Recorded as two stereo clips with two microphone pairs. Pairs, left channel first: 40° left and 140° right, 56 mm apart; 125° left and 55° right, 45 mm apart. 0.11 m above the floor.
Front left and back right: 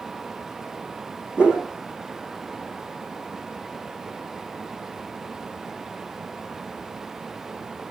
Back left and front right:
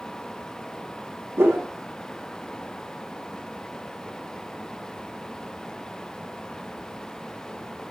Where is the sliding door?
I don't hear a sliding door.